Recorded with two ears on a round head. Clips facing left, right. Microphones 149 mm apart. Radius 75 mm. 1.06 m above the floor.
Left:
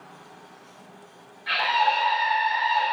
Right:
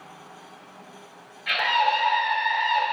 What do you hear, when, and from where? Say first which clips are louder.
1.5 s a scream: even; 30° right (ahead or behind), 3.5 m